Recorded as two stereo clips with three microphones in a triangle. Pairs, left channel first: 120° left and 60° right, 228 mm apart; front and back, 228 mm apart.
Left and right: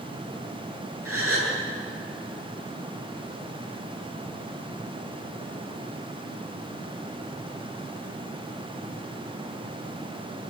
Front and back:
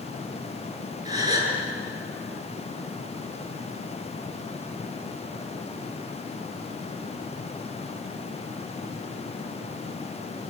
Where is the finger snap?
No finger snap in this recording.